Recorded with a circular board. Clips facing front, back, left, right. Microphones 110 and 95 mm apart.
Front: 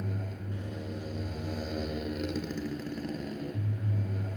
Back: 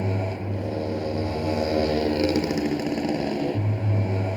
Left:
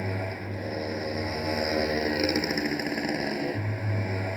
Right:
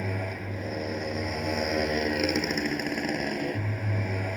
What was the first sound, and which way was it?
A motorcycle, 175° left.